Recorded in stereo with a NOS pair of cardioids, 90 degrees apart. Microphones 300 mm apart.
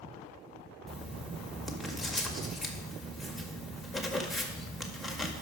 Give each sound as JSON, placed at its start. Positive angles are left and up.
{"t": 0.9, "sound": "writing", "azimuth_deg": 0, "distance_m": 1.7}